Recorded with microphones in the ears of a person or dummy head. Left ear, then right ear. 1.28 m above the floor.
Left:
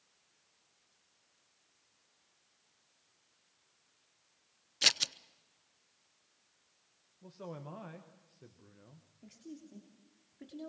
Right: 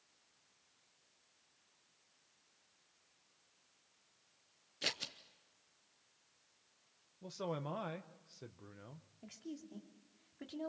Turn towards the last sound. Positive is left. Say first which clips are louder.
# right 1 dB
turn(degrees=-30)  # may be behind; listen again after turning